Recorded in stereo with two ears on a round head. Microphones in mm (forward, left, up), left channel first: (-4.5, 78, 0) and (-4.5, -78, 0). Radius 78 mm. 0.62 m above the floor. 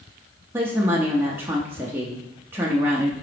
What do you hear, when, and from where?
0.5 s a woman speaking: 15° right (ahead or behind), 0.6 m